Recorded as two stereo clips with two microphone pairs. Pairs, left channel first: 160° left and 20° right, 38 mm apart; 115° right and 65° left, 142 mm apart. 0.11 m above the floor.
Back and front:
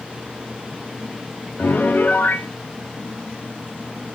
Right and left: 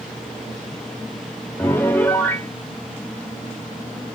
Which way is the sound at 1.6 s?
170° left.